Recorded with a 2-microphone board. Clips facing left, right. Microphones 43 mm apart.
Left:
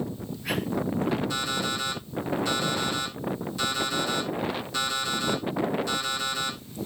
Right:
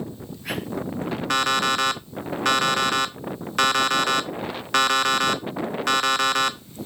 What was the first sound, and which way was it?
An alarm clock, 65° right (ahead or behind).